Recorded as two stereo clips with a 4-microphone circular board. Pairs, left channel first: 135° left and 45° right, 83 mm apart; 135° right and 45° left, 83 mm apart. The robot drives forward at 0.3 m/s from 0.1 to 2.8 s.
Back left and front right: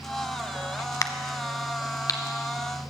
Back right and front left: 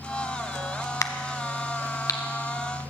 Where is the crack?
Straight behind, 0.7 m.